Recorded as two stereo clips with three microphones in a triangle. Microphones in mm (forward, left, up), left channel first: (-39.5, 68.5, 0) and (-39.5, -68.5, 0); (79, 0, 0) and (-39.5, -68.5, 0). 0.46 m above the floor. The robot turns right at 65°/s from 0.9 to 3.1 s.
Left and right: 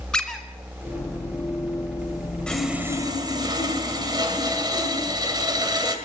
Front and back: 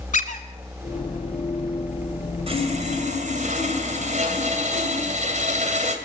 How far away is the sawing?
About 2.5 m.